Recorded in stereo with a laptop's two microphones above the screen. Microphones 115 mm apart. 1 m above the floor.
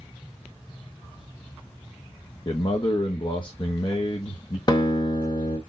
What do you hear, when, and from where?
2.5 s a man speaking: 45° left (ahead or behind), 1.1 m
4.7 s a guitar: 40° left (ahead or behind), 1.0 m